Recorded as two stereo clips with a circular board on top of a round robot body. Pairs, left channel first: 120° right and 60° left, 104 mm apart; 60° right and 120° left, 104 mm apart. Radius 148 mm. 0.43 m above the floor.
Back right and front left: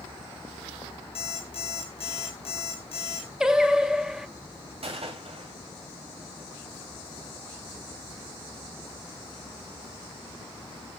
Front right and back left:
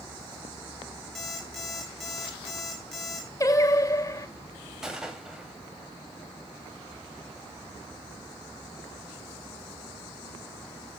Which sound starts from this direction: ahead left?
A gunshot, at 4.8 s.